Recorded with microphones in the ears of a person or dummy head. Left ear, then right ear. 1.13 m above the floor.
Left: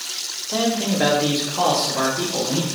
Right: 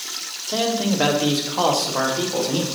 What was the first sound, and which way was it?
A man speaking, 10° right (ahead or behind).